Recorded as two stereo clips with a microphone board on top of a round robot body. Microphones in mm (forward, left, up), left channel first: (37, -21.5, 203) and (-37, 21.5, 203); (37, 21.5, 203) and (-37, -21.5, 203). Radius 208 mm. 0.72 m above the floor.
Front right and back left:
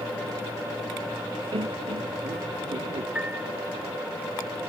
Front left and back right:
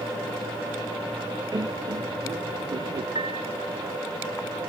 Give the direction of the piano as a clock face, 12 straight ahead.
4 o'clock.